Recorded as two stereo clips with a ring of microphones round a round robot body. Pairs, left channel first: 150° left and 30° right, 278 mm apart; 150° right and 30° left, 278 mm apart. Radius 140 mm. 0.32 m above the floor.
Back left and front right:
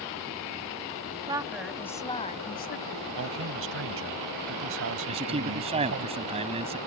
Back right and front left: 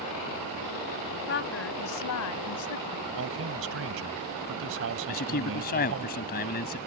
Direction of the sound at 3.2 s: Straight ahead.